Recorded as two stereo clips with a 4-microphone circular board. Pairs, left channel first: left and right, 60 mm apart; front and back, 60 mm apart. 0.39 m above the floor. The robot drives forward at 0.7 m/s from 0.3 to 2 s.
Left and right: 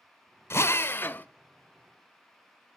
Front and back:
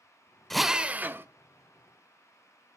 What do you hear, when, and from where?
0.5 s a drill: 85° left, 0.5 m; by 1.3 s 145° left, 0.7 m